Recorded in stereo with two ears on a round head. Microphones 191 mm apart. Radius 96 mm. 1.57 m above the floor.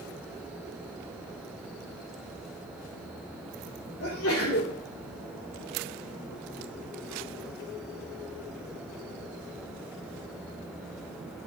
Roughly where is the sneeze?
Left.